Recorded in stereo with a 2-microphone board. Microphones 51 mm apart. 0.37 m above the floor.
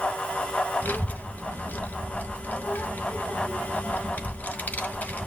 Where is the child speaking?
35° left (ahead or behind), 1.3 m.